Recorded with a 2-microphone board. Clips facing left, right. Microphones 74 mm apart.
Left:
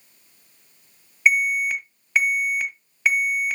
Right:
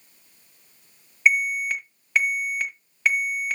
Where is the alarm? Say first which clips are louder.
Left 2 dB; 5° left (ahead or behind), 1.7 m.